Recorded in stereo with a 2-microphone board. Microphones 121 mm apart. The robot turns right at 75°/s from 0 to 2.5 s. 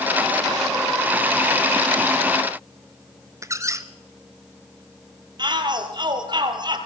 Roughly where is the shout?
Right.